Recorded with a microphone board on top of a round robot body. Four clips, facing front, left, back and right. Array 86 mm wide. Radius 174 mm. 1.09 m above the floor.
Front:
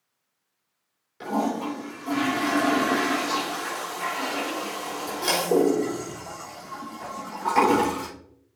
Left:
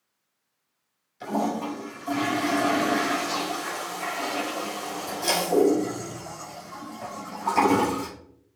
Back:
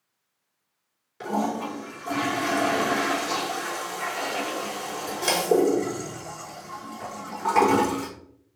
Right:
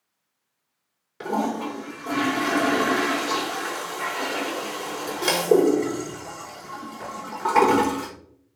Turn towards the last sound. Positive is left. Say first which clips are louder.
# right 1 dB, front 1 dB
turn(degrees=-100)